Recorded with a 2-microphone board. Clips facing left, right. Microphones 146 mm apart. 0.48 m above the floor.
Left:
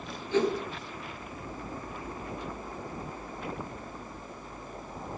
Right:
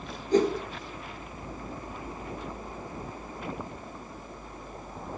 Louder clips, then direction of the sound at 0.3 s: Right 3 dB; 40° right (ahead or behind).